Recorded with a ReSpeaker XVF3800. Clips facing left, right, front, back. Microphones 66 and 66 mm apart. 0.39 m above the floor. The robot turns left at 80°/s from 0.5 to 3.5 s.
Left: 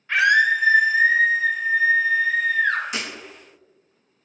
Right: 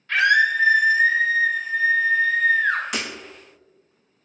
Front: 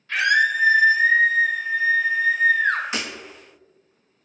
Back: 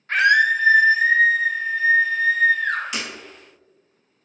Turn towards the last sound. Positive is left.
turn(degrees=-105)